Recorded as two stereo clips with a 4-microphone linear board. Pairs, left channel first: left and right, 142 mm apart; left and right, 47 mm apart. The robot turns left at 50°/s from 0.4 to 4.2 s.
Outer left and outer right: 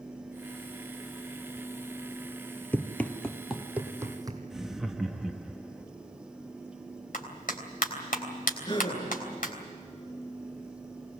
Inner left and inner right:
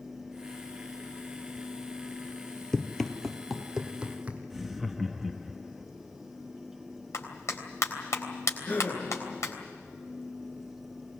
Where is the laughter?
5° right (ahead or behind), 0.9 m.